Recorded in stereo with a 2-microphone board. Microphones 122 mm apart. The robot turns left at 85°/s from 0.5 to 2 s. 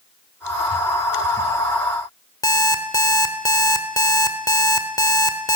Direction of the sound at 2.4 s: 30° left (ahead or behind).